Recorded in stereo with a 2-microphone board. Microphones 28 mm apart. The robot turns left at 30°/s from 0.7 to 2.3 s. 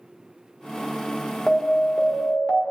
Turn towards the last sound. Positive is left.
turn(degrees=40)  # may be behind; listen again after turning